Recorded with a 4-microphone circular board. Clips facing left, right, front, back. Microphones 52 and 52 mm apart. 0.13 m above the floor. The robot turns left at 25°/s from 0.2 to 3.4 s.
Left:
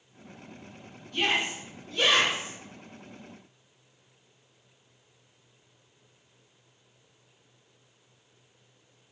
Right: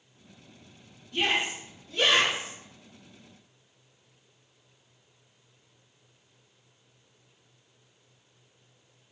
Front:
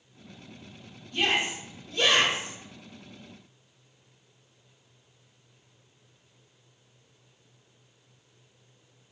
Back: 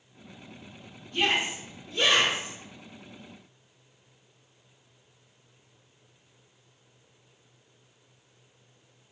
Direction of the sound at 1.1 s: 155° right.